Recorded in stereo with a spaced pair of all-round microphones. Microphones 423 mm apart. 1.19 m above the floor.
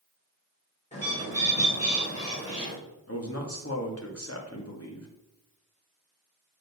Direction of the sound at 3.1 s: 35° left (ahead or behind).